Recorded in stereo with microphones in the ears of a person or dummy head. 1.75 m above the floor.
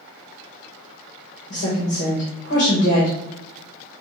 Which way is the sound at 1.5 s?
40° left (ahead or behind).